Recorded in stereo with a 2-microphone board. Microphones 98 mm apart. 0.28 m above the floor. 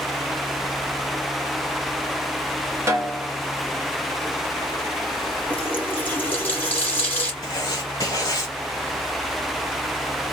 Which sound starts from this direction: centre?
A running tap, at 5.5 s.